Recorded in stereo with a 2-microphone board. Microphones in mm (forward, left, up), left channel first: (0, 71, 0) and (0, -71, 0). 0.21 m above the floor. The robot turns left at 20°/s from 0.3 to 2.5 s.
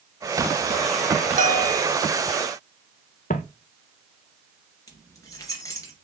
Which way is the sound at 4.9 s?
25° left (ahead or behind).